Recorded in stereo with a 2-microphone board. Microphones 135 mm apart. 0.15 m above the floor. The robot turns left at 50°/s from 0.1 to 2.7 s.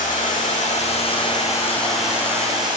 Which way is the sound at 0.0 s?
95° left.